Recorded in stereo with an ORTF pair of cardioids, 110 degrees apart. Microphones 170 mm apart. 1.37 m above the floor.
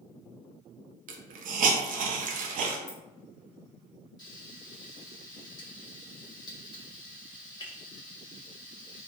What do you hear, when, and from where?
1.1 s a hiss: 55° right, 0.5 m
2.9 s keys jangling: 55° left, 1.6 m
4.2 s frying: 25° left, 1.0 m